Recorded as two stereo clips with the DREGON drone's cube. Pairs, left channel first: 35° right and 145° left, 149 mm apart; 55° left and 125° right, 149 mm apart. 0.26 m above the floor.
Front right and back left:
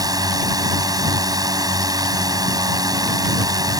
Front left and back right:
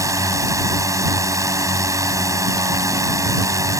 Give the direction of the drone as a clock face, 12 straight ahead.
6 o'clock.